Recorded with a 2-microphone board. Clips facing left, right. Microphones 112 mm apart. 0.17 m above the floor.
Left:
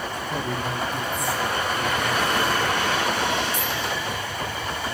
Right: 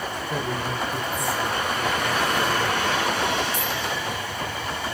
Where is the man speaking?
35° right (ahead or behind), 4 m.